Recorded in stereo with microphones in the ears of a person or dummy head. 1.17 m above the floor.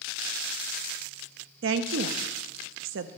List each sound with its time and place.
1.6 s a woman speaking: 65° right (ahead or behind), 0.6 m